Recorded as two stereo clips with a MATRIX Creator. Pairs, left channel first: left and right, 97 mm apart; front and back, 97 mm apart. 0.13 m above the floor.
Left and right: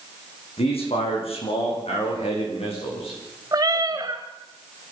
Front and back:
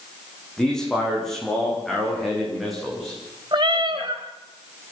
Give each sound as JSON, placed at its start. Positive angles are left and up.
{"t": 0.6, "sound": "a man speaking", "azimuth_deg": 85, "distance_m": 6.5}
{"t": 3.5, "sound": "a cat meowing", "azimuth_deg": -140, "distance_m": 3.5}